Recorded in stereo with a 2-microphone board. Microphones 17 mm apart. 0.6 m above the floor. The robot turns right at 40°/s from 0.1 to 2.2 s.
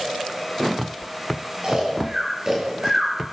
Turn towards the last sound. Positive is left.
turn(degrees=-30)  # may be behind; listen again after turning